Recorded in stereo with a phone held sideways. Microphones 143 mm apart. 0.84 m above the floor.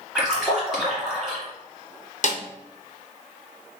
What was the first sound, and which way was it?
A splash, centre (ahead or behind).